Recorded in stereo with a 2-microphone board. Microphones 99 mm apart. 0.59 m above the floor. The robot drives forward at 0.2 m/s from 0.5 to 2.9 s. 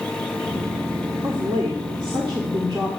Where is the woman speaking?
55° right (ahead or behind), 1.4 m; by 2.9 s 50° right (ahead or behind), 1.5 m.